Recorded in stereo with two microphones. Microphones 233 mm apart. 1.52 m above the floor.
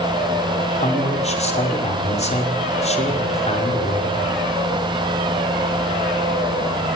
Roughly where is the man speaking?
Left.